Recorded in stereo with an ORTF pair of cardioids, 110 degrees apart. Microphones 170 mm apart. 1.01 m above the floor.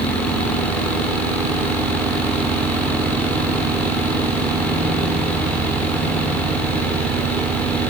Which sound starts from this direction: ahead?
A fan, at 0.0 s.